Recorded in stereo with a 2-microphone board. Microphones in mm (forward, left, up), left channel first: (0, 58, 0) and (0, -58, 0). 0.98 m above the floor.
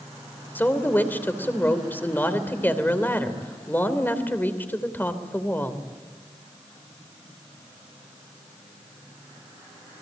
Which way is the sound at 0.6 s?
15° left (ahead or behind).